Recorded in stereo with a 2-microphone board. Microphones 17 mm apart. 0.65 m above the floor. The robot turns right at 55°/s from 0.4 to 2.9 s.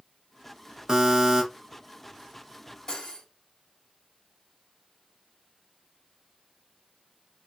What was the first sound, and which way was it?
A buzzer, 35° right (ahead or behind).